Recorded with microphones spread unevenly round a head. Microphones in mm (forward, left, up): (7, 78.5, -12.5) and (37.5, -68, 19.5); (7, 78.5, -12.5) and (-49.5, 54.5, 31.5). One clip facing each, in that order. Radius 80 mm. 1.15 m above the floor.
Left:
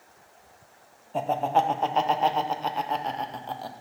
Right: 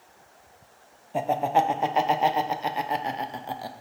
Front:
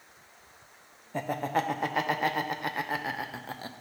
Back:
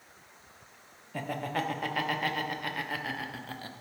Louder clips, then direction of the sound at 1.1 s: Right 1 dB, front 4 dB; 5° left.